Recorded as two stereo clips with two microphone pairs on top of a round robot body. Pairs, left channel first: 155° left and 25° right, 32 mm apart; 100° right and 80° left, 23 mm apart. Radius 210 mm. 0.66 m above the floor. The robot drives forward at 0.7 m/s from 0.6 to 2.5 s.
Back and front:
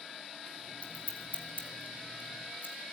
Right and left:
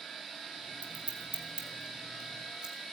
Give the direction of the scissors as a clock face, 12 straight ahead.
9 o'clock.